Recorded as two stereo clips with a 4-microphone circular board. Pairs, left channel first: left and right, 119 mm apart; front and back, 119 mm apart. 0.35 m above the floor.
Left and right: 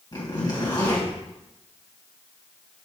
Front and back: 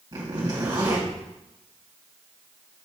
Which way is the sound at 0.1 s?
135° left.